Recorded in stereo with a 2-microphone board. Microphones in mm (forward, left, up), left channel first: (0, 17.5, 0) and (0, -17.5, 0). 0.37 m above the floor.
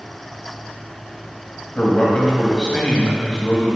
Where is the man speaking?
25° left (ahead or behind), 1.9 m.